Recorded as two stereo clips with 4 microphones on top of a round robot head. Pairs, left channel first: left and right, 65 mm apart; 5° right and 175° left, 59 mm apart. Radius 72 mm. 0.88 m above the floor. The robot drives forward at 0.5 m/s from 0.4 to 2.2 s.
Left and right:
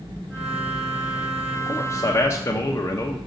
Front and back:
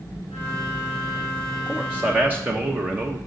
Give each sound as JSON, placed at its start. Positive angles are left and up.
{"t": 1.7, "sound": "a man speaking", "azimuth_deg": 100, "distance_m": 0.8}